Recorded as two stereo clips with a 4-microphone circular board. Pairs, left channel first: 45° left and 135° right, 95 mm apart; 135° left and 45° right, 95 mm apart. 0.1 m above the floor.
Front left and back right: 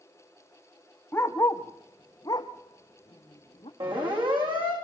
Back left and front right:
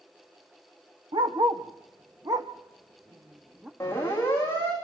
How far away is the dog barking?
About 1.9 m.